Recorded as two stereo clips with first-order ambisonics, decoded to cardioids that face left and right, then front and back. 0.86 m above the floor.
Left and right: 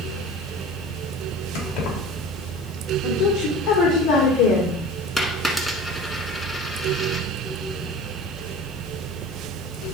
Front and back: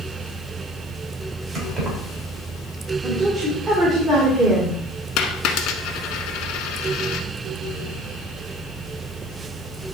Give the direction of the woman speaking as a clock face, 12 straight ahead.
8 o'clock.